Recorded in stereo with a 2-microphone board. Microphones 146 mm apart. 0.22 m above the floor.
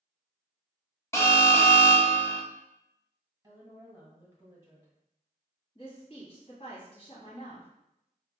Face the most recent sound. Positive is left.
turn(degrees=40)  # may be behind; listen again after turning